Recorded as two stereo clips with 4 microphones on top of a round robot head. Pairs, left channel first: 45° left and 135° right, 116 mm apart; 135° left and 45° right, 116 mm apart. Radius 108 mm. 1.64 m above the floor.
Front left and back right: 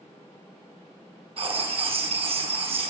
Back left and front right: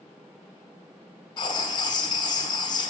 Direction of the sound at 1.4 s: 170° right.